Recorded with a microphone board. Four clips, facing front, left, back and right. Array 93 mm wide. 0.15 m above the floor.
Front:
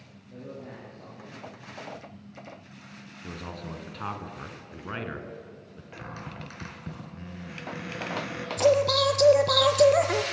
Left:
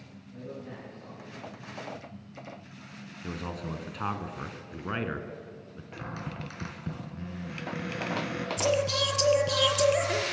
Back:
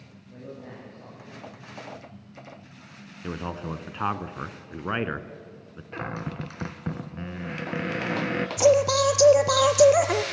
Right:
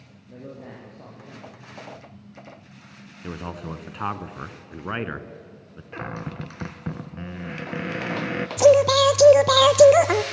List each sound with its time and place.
0.3 s a man speaking: 90° right, 7 m
3.2 s a man speaking: 145° right, 1.2 m
5.9 s a cupboard door: 135° right, 1.1 m
8.6 s singing: 100° right, 0.9 m